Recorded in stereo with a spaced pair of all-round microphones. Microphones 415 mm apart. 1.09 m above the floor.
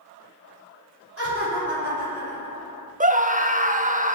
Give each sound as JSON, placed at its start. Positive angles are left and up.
{"t": 1.2, "sound": "laughter", "side_deg": -35, "distance_m": 4.0}
{"t": 3.0, "sound": "a scream", "side_deg": -20, "distance_m": 0.7}